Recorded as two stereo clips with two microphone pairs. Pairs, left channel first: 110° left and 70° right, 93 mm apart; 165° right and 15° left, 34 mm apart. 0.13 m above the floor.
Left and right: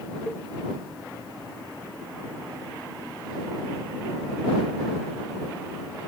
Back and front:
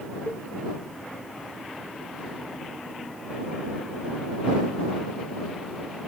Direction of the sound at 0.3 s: 170° right.